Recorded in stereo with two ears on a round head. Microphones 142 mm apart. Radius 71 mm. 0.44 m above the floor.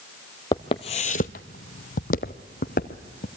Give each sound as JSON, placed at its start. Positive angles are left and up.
{"t": 0.5, "sound": "footsteps", "side_deg": 25, "distance_m": 0.7}